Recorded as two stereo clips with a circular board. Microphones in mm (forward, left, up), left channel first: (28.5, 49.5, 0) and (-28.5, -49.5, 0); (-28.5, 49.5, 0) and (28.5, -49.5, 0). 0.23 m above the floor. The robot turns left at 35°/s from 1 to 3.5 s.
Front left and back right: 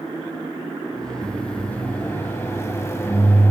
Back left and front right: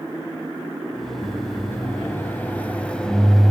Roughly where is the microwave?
Behind left.